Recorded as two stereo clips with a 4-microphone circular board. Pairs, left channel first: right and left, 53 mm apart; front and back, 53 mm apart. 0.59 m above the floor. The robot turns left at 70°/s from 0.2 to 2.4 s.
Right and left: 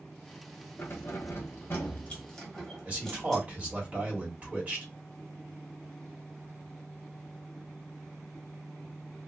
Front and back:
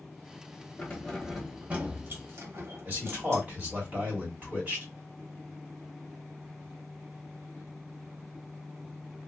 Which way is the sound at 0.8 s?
55° right.